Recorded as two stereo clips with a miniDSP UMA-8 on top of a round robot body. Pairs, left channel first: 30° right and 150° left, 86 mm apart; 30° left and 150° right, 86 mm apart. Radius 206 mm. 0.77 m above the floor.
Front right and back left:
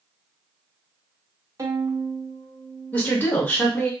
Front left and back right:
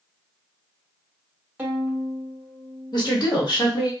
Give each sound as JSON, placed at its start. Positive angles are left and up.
{"t": 1.6, "sound": "a violin", "azimuth_deg": 155, "distance_m": 1.2}
{"t": 2.9, "sound": "a woman speaking", "azimuth_deg": 40, "distance_m": 1.5}